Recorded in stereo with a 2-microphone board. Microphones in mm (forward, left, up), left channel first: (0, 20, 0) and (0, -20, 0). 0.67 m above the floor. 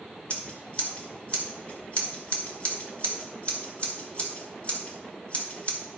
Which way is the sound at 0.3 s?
30° left (ahead or behind).